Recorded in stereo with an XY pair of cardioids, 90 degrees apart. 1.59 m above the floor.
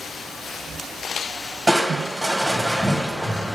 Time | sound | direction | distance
1.7 | crushing | 10° right | 1.8 m